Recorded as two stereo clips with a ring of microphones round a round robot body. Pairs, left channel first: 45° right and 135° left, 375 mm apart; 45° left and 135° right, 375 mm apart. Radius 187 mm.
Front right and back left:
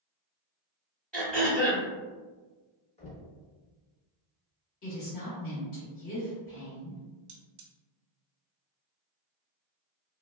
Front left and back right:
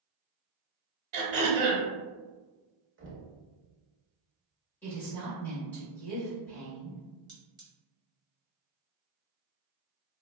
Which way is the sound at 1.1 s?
135° right.